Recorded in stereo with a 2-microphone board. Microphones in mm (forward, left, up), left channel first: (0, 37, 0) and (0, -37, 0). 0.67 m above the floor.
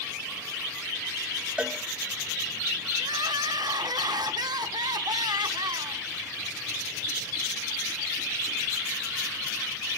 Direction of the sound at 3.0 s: 75° right (ahead or behind).